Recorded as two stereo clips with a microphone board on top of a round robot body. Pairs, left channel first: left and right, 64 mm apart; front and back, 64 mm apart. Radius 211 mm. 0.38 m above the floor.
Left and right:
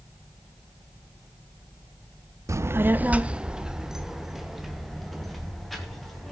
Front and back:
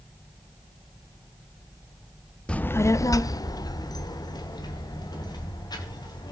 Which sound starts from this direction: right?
A child speaking, at 2.5 s.